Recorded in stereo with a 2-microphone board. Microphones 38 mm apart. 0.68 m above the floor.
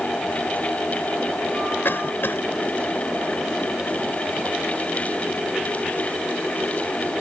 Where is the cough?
75° left (ahead or behind).